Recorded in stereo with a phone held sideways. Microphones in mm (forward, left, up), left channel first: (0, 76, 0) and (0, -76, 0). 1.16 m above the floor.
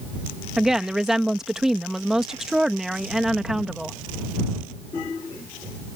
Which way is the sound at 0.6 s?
5° right (ahead or behind).